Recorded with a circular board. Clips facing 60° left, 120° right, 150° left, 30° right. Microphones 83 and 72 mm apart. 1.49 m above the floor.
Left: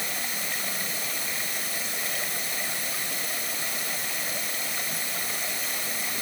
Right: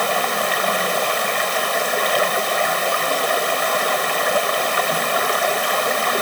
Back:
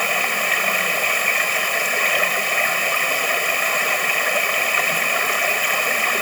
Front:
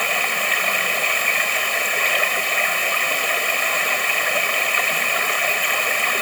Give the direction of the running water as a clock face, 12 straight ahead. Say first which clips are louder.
Right 16 dB, back 1 dB; 4 o'clock.